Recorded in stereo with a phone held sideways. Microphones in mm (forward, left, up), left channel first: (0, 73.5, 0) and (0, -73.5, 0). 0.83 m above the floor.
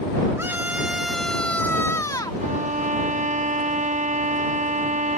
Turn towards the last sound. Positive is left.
turn(degrees=-50)  # may be behind; listen again after turning